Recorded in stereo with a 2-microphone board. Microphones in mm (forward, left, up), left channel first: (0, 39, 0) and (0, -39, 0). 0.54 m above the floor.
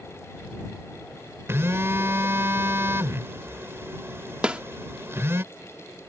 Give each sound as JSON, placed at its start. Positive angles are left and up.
{"t": 1.5, "sound": "a phone buzzing", "side_deg": -35}
{"t": 4.4, "sound": "a snare drum", "side_deg": -15}